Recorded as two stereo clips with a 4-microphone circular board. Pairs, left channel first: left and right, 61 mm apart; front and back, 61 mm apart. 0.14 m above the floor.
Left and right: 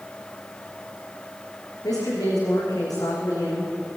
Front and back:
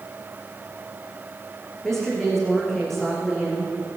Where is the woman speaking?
85° left, 9 m.